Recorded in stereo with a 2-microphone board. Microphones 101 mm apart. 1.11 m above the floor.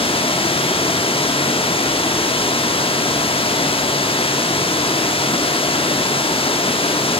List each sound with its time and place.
0.0 s running water: 70° left (ahead or behind), 1.2 m